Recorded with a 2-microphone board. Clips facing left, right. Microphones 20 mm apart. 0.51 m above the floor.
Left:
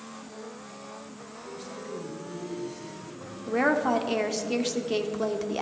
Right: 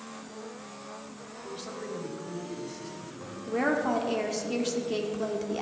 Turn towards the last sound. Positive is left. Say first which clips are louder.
# left 3 dB
turn(degrees=15)  # may be behind; listen again after turning